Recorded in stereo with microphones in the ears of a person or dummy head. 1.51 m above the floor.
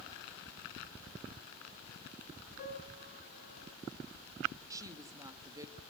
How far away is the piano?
About 9 m.